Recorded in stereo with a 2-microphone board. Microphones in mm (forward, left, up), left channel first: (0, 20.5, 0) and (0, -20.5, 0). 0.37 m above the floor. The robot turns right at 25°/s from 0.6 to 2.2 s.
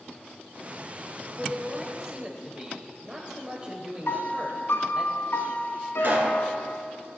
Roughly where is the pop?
Right.